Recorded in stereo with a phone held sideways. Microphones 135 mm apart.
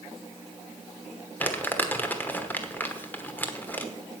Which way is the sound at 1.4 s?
15° left (ahead or behind).